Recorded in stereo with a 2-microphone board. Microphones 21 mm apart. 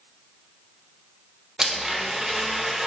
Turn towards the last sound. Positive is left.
turn(degrees=-30)  # may be behind; listen again after turning